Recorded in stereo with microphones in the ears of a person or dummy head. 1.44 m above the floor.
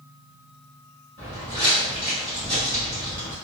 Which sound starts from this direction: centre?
Footsteps, at 1.2 s.